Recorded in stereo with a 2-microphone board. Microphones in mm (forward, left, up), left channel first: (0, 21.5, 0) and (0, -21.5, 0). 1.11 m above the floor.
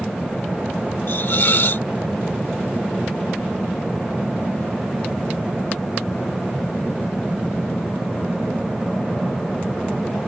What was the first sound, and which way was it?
A hiss, 55° left (ahead or behind).